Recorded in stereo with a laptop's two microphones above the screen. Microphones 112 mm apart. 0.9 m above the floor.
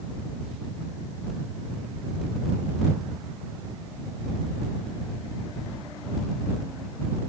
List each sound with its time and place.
Only background noise.